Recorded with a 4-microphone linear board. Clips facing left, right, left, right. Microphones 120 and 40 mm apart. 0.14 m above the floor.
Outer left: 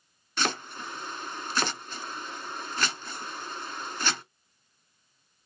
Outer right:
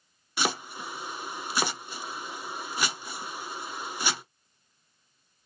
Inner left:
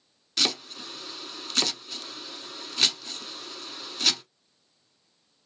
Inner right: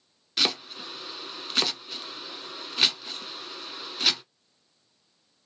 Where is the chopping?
10° right (ahead or behind), 0.6 m.